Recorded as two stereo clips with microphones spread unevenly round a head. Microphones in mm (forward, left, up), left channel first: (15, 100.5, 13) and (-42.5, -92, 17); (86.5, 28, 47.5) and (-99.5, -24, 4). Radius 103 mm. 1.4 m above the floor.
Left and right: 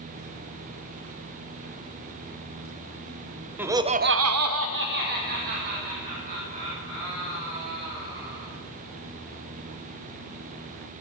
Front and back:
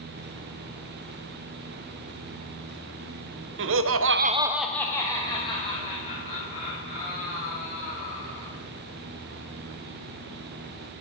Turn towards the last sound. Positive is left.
turn(degrees=-45)